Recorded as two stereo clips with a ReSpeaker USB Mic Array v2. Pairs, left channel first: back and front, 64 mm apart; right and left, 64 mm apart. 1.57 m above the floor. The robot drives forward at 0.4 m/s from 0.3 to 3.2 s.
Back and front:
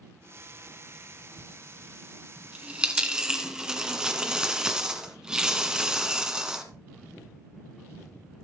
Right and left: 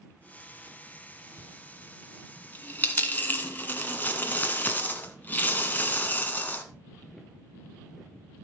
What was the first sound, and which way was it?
A dropped coin, 40° right.